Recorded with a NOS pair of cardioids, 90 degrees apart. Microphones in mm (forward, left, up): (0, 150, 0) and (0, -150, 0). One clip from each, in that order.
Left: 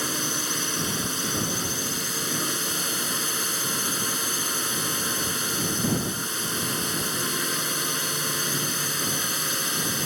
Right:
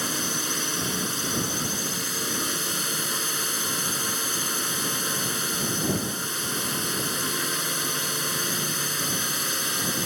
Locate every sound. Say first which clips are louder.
0.0 s a drone: even; 5° left